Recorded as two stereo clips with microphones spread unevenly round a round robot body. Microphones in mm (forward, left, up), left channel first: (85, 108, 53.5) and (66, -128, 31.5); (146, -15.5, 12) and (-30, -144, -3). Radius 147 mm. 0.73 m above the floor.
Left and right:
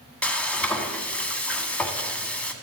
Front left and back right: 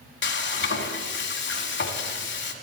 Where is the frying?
Straight ahead, 1.4 m.